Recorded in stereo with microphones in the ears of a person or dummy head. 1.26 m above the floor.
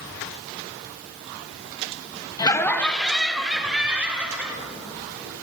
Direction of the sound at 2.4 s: 20° left (ahead or behind).